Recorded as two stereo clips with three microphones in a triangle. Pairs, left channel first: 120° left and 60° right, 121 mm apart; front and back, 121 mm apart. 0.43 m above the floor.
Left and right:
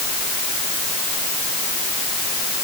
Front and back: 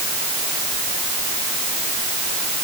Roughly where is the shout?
No shout in this recording.